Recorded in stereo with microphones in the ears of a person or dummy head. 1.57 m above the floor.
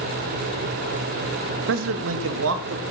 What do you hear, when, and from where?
1.7 s a man speaking: 70° right (ahead or behind), 1.2 m; by 2.8 s 85° right, 2.5 m